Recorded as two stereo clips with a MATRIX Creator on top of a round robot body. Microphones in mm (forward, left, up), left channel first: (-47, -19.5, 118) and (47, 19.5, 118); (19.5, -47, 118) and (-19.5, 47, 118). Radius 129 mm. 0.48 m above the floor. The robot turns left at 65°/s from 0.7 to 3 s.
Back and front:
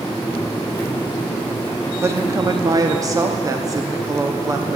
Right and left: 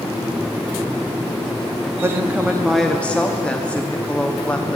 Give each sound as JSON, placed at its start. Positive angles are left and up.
{"t": 2.0, "sound": "a woman speaking", "azimuth_deg": 70, "distance_m": 1.0}